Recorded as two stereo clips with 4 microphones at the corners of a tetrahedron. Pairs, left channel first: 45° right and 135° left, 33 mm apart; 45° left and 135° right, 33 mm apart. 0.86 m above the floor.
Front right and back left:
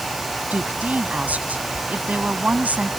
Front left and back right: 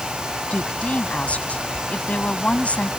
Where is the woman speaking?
95° left.